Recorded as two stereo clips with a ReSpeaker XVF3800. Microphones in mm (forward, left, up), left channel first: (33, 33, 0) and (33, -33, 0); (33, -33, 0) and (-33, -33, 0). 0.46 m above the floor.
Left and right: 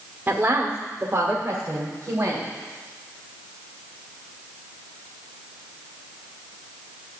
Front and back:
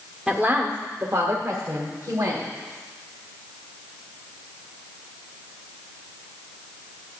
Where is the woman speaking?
120° right, 0.8 m; by 2.5 s 145° right, 2 m.